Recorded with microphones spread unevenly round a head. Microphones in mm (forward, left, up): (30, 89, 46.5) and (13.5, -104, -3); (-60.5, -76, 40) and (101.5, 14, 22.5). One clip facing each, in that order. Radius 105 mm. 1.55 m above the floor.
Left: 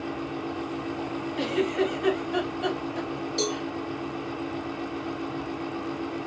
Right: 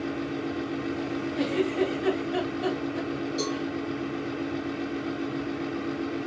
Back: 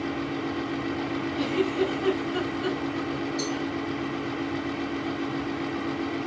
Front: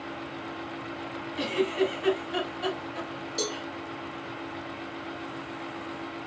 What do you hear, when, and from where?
0.0 s a fan: 140° right, 0.9 m
1.4 s a giggle: straight ahead, 5.5 m
3.4 s a cowbell: 25° left, 5.5 m